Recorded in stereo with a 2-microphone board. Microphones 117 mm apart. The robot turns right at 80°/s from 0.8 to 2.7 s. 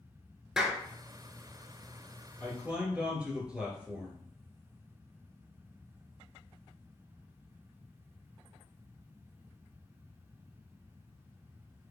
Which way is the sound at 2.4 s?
25° right (ahead or behind).